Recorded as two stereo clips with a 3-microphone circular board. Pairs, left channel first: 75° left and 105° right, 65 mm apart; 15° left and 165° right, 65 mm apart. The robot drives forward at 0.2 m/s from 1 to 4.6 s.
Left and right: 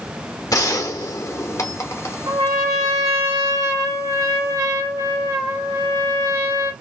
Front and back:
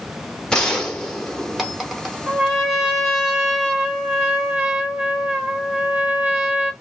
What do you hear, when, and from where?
0.5 s a gunshot: 95° left, 0.7 m; by 2.2 s 115° left, 0.8 m
2.3 s a trumpet: 75° right, 1.5 m; by 6.7 s 95° right, 1.5 m